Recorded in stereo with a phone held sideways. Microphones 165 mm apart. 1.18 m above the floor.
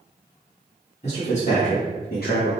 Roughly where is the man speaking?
Left.